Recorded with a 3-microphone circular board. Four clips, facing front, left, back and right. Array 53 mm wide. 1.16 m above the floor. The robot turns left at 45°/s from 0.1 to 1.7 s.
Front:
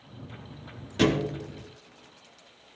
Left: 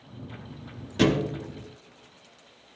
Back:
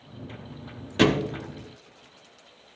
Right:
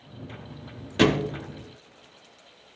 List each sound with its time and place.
1.0 s a thud: 135° right, 0.8 m; by 1.4 s 155° right, 0.8 m